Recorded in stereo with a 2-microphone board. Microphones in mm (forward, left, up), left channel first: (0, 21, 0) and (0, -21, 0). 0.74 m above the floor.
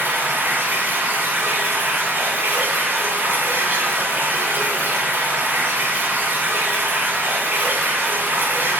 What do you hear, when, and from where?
0.0 s running water: 55° right (ahead or behind), 1.7 m